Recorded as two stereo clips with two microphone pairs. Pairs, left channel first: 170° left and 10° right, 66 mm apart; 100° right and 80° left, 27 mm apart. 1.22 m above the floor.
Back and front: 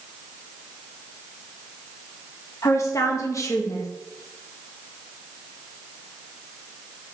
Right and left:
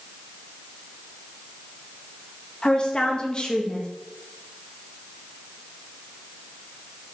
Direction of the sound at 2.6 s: 155° right.